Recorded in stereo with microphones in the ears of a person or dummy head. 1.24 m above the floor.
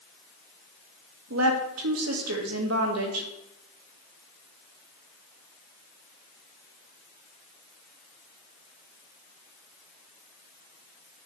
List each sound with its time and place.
1.3 s a woman speaking: 80° right, 1.5 m